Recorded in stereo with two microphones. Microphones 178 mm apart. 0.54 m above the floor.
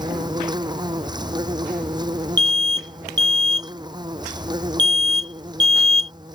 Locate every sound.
0.0 s an insect: 25° right (ahead or behind)
2.4 s an alarm: 25° right (ahead or behind)